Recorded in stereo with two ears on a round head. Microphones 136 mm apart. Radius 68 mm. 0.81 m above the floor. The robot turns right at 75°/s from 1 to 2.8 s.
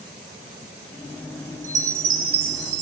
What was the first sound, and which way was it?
A chime, 165° right.